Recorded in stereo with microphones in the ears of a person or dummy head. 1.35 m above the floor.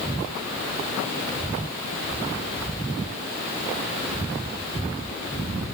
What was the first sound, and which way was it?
Only background noise.